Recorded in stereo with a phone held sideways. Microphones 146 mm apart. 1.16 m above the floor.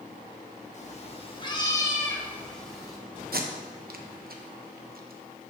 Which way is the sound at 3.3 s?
80° right.